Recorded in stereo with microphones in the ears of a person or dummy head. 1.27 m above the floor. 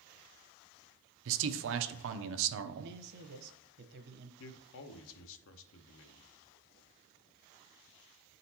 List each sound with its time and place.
1.2 s a man speaking: 60° right (ahead or behind), 0.6 m
2.8 s a man speaking: 60° right (ahead or behind), 0.9 m
4.4 s a man speaking: 70° left (ahead or behind), 0.7 m